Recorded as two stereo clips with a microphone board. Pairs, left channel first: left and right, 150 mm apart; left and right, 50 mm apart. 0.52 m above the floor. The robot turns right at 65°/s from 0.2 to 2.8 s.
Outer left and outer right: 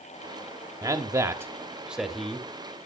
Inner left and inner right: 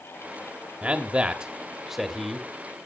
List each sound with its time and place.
0.8 s a man speaking: 20° right (ahead or behind), 1.3 m; by 2.5 s 10° left (ahead or behind), 1.3 m